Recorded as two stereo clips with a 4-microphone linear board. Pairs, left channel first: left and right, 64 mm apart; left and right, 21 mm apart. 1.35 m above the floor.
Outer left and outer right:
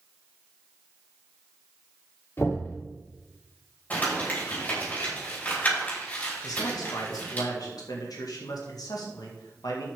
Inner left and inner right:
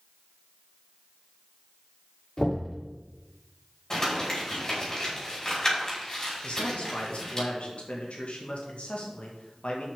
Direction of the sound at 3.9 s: 25° left (ahead or behind).